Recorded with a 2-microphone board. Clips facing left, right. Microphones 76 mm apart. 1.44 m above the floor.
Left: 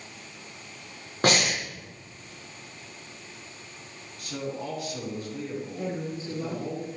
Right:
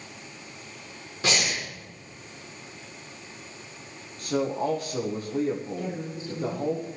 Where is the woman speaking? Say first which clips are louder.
Left 1 dB; 40° left (ahead or behind), 4 m.